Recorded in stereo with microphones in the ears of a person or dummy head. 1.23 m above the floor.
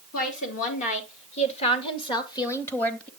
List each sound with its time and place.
0.1 s a woman speaking: 45° left (ahead or behind), 3 m; by 3.1 s 5° left (ahead or behind), 1.3 m